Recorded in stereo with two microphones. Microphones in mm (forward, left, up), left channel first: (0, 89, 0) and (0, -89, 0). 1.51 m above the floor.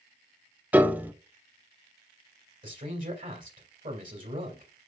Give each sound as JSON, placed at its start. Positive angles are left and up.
{"t": 0.7, "sound": "a piano", "side_deg": -10, "distance_m": 0.6}
{"t": 2.6, "sound": "a man speaking", "side_deg": -50, "distance_m": 2.5}